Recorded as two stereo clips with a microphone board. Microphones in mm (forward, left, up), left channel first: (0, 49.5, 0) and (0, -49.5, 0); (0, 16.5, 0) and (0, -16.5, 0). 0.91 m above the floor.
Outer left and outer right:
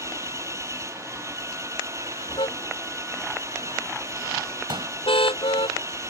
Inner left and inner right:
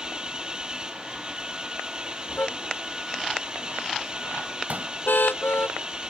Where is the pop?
60° right (ahead or behind).